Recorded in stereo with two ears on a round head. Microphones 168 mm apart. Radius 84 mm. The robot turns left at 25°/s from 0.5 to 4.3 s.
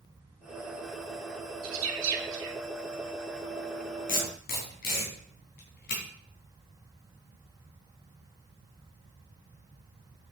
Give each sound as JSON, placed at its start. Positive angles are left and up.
{"t": 1.6, "sound": "a bird", "side_deg": -80, "distance_m": 1.6}
{"t": 4.1, "sound": "tape being pulled", "side_deg": 50, "distance_m": 3.0}